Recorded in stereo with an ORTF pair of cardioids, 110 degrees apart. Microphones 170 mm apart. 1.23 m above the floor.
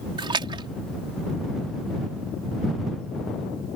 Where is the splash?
30° right.